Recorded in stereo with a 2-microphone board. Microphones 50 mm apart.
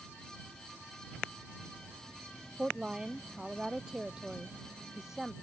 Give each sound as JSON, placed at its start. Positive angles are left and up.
{"t": 2.6, "sound": "a woman speaking", "side_deg": -20}